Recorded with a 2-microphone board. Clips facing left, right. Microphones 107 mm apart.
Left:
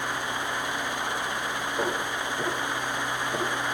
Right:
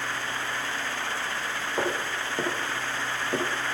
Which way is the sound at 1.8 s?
85° right.